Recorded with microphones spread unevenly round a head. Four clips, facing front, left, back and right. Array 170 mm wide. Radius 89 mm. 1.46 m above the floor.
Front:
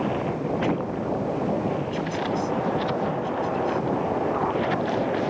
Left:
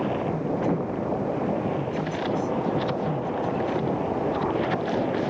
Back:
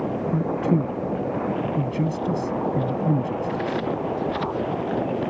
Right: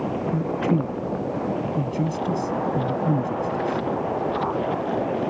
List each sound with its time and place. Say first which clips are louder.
0.3 s a man speaking: right 2 dB, back 3 dB; 135° right